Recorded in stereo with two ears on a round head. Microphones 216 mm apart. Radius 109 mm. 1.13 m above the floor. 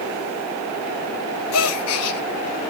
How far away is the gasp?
About 1.3 m.